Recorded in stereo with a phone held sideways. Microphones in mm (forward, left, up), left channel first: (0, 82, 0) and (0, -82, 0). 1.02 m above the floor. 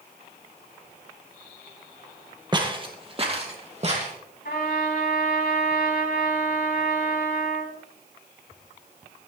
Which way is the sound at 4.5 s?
80° left.